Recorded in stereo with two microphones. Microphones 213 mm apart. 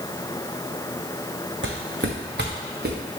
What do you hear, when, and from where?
1.6 s footsteps: 65° right (ahead or behind), 1.3 m; by 3.0 s 50° right (ahead or behind), 2.5 m